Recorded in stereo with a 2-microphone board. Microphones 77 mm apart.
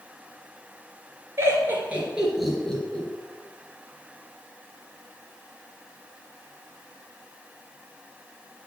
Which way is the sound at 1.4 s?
35° right (ahead or behind).